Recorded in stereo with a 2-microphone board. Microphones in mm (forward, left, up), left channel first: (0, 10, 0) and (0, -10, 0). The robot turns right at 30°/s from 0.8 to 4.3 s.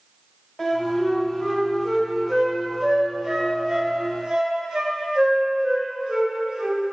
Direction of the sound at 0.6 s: 25° left (ahead or behind).